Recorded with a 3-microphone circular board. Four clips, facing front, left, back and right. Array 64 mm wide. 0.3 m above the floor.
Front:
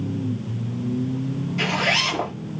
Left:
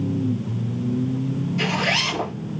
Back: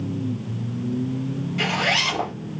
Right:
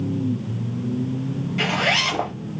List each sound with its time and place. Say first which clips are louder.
1.6 s a zipper: right 3 dB, even; 85° right, 1.0 m